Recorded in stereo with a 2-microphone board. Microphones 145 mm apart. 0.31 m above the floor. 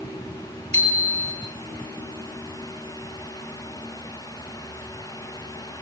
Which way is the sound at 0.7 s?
45° right (ahead or behind).